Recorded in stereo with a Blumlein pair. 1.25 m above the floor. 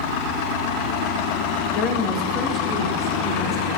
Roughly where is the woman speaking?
Ahead left.